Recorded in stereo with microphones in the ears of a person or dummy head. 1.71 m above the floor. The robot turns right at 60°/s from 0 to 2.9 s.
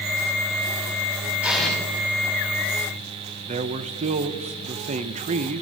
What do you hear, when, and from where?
1.4 s an explosion: 10° right (ahead or behind), 7 m; by 1.8 s 10° left (ahead or behind), 7 m
3.5 s a man speaking: 35° right (ahead or behind), 0.7 m